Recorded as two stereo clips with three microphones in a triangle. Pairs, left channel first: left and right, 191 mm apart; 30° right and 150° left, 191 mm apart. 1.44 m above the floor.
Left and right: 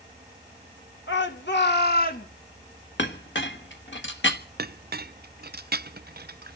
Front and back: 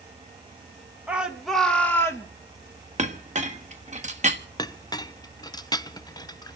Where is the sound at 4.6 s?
95° right, 0.5 m.